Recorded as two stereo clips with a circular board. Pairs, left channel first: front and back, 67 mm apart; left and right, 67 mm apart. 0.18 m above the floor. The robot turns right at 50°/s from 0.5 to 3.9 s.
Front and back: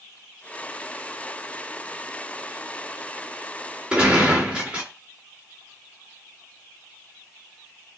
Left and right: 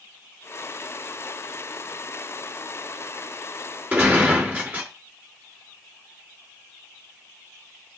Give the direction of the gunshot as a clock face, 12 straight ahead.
4 o'clock.